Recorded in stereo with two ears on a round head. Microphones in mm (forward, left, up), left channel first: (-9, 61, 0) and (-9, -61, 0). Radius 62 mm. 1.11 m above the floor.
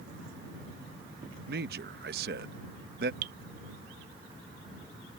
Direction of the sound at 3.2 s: 70° right (ahead or behind).